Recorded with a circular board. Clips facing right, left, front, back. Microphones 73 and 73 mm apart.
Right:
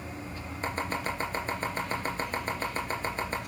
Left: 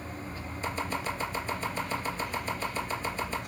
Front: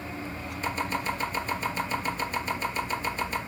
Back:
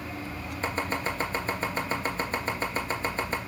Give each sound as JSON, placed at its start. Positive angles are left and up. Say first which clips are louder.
{"t": 0.6, "sound": "chopping", "louder": "right 1 dB, even", "azimuth_deg": -135, "distance_m": 3.0}